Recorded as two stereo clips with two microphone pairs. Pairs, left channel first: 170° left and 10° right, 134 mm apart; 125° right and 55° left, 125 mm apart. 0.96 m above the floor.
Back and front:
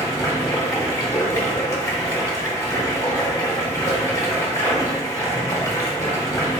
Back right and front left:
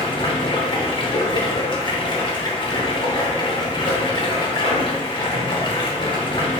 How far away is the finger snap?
No finger snap in this recording.